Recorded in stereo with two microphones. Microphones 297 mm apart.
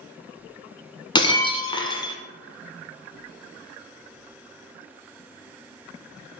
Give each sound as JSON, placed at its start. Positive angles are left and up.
{"t": 1.1, "sound": "breaking glass", "side_deg": 15, "distance_m": 0.9}